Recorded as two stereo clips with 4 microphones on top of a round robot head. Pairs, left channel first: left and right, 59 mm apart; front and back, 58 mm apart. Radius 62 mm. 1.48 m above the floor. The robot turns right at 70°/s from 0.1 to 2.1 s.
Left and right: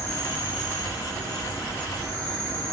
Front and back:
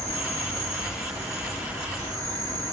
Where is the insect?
50° left, 1.9 m; by 2.7 s 170° right, 1.9 m.